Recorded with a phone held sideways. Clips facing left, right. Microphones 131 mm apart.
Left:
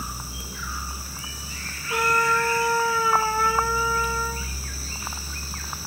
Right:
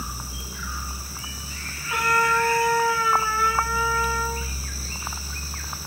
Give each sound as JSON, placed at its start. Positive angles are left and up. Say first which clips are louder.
{"t": 1.9, "sound": "a trumpet", "louder": "even", "side_deg": 35, "distance_m": 1.5}